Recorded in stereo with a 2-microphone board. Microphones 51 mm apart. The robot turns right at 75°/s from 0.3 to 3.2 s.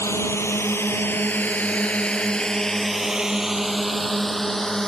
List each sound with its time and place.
0.0 s a drone: 65° left (ahead or behind); by 4.9 s 10° left (ahead or behind)